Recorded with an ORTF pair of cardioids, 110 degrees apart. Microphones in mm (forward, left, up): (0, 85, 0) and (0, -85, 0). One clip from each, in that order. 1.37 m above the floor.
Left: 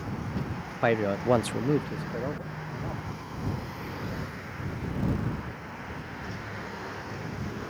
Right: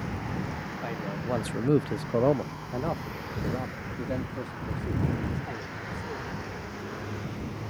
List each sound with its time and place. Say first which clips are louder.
0.8 s a man speaking: left 12 dB; 70° left; by 6.3 s 80° right